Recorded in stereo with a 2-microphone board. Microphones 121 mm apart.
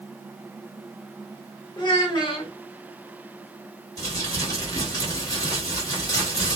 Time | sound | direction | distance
1.8 | a child speaking | 40° left (ahead or behind) | 0.9 m
4.0 | crumpling | 30° left (ahead or behind) | 1.4 m